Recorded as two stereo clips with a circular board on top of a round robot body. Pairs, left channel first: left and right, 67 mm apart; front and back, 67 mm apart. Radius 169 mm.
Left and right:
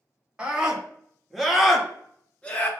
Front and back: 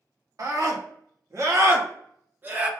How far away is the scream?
About 2.0 m.